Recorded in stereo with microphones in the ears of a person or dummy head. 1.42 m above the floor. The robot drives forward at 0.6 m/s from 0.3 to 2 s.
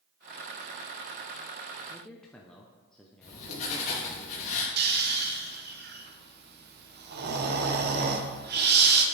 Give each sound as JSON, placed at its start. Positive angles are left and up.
{"t": 1.9, "sound": "a man speaking", "side_deg": 0, "distance_m": 0.6}
{"t": 3.2, "sound": "writing", "side_deg": 60, "distance_m": 2.0}
{"t": 4.8, "sound": "snoring", "side_deg": -55, "distance_m": 1.0}